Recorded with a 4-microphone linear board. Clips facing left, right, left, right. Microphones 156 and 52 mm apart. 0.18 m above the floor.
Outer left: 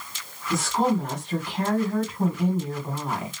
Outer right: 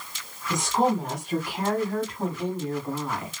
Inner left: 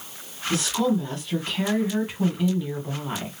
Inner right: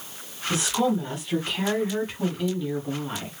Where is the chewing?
No chewing in this recording.